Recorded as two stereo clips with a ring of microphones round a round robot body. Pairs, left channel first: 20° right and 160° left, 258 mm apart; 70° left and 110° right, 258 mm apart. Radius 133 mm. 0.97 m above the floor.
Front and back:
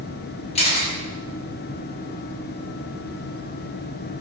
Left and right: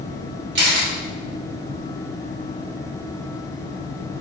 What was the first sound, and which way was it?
A camera shutter, 80° right.